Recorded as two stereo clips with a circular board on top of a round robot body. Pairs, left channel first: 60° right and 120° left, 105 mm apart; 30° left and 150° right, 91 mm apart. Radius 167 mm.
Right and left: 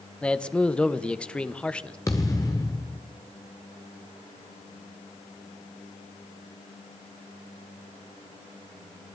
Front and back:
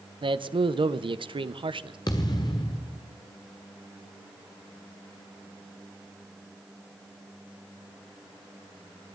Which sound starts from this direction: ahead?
A thud, at 2.1 s.